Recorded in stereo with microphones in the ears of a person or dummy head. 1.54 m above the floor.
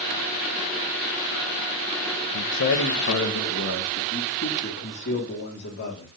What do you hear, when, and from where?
2.3 s a man speaking: 60° left (ahead or behind), 0.8 m; by 6.1 s 50° left (ahead or behind), 3 m